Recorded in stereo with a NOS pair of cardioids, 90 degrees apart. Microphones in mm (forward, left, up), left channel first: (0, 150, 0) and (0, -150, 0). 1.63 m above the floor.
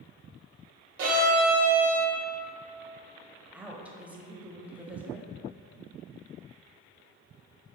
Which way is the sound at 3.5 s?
5° right.